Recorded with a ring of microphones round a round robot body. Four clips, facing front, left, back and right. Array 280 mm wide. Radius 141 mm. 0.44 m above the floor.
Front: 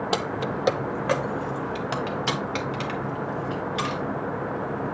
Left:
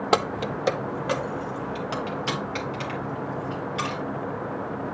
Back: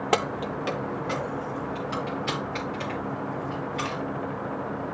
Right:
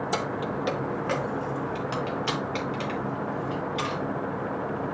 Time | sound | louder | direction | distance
0.1 | keys jangling | left 8 dB, back 3 dB | 110° left | 0.6 m